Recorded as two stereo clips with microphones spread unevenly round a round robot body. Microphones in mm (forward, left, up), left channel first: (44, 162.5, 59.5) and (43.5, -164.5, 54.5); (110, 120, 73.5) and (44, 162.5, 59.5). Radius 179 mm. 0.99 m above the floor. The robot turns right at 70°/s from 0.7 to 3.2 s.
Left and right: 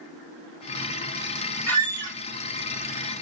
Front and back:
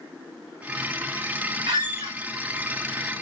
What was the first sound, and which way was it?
A squeak, 145° left.